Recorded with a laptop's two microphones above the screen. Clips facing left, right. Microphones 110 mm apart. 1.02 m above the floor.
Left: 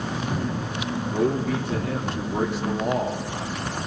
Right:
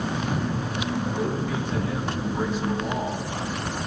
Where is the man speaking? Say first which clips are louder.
Left 4 dB; 80° left, 3 m.